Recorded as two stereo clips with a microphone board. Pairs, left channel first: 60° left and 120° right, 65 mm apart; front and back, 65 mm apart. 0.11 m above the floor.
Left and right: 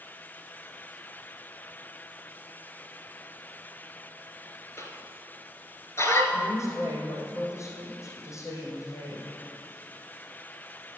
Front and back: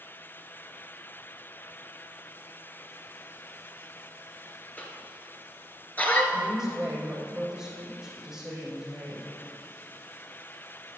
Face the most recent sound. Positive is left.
turn(degrees=100)